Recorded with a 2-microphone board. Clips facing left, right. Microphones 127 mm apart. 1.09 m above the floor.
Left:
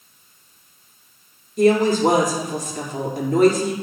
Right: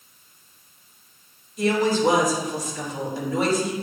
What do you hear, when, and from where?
1.6 s a woman speaking: 55° left (ahead or behind), 2 m